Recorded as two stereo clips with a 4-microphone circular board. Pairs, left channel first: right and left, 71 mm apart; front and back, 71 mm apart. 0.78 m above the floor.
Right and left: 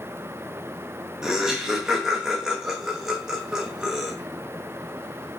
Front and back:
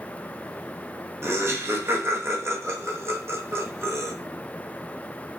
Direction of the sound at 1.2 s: 165° left.